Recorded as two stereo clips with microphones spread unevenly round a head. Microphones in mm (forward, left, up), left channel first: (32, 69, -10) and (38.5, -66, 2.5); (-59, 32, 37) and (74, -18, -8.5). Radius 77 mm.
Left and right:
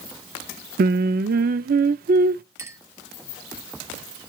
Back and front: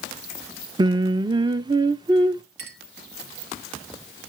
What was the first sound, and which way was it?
Singing, 90° right.